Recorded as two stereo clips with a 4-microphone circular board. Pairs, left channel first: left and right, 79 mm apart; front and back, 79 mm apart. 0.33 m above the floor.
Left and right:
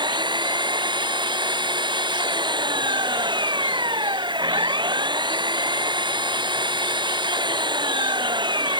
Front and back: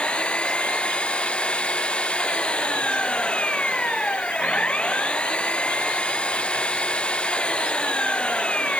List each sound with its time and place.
0.0 s an engine running: 75° right